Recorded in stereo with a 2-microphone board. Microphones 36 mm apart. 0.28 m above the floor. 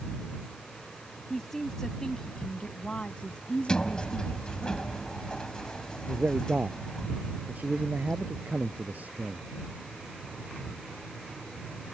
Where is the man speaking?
50° right (ahead or behind).